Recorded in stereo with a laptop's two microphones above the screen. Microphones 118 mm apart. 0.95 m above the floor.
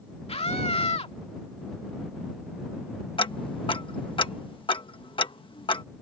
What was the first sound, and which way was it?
A scream, 60° left (ahead or behind).